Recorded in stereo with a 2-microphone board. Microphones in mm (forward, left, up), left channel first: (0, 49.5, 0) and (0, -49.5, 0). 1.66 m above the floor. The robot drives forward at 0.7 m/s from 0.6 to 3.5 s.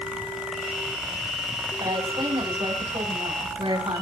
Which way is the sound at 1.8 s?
60° right (ahead or behind).